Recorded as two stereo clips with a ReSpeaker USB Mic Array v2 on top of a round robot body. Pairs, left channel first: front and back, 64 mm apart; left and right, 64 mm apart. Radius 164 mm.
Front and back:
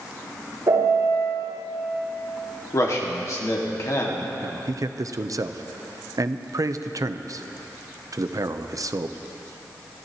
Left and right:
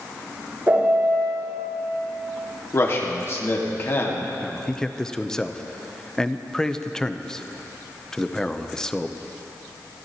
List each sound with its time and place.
0.7 s a piano: 145° right, 6 m
2.7 s a man speaking: 40° left, 2 m
4.4 s a man speaking: 170° left, 0.9 m